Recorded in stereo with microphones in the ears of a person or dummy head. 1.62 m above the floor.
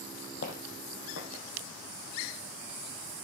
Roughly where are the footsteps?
Left.